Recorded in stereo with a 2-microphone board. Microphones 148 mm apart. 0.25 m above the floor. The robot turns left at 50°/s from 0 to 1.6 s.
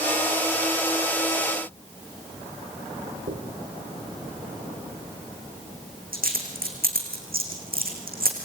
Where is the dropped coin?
85° right, 5 m.